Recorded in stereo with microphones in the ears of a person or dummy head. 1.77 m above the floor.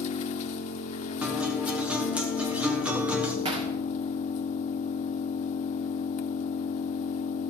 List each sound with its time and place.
0.0 s an engine running: 45° left (ahead or behind), 0.9 m
1.2 s a guitar: 10° right (ahead or behind), 1.2 m
3.5 s hammering: 35° right (ahead or behind), 1.8 m